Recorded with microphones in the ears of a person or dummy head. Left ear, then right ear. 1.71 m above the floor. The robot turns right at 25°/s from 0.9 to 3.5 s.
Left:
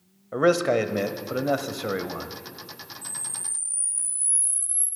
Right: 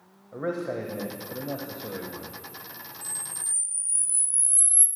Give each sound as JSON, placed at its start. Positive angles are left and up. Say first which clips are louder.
{"t": 0.3, "sound": "a man speaking", "louder": "left 10 dB", "azimuth_deg": 105, "distance_m": 0.7}
{"t": 3.0, "sound": "a camera shutter", "louder": "even", "side_deg": -65, "distance_m": 4.5}